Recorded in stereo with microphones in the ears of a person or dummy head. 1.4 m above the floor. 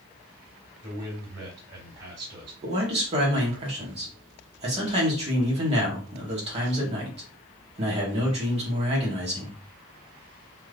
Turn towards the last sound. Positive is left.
turn(degrees=-30)  # may be behind; listen again after turning